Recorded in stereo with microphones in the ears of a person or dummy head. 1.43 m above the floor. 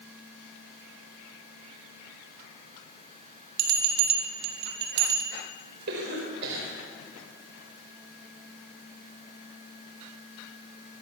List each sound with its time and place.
3.6 s a bell: 55° right (ahead or behind), 4 m
5.9 s a cough: 60° right (ahead or behind), 5 m